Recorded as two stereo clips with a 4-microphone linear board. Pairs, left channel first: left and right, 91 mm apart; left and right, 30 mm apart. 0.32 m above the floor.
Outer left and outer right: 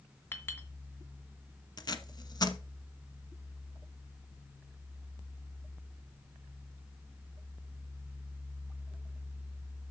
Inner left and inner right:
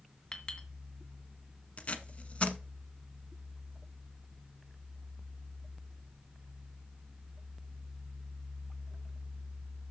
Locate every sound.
0.3 s a clink: 25° left (ahead or behind), 1.9 m
1.8 s tape being pulled: 45° left (ahead or behind), 1.1 m